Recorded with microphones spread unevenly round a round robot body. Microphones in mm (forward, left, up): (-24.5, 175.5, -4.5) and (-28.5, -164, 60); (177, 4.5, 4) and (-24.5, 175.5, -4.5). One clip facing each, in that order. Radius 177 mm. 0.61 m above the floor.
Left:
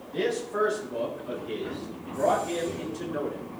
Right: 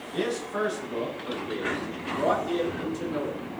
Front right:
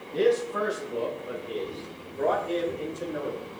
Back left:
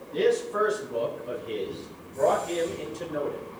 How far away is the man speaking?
About 5.5 m.